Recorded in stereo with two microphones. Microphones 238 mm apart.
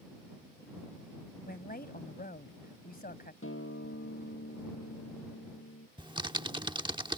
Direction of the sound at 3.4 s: 60° left (ahead or behind).